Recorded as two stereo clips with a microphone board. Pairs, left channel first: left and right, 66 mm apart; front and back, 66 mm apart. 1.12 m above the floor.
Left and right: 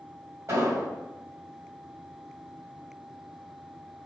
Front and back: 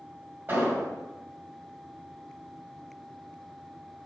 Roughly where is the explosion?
Behind right.